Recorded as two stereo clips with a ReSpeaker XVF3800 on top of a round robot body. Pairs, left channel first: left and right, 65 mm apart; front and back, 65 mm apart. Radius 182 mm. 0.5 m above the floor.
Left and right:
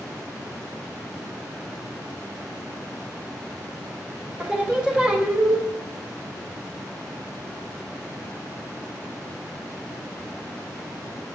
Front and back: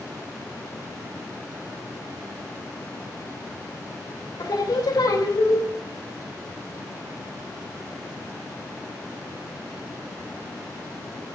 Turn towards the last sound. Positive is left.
turn(degrees=-15)